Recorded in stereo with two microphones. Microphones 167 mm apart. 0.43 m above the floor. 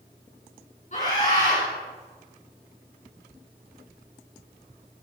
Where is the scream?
45° left (ahead or behind), 4.5 m.